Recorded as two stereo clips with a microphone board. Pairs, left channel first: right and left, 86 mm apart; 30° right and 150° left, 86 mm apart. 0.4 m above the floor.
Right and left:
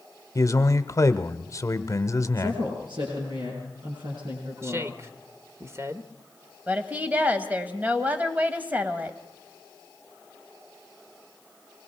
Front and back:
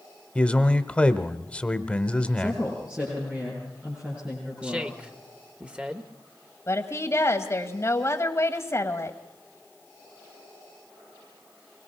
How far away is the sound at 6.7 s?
About 1.8 m.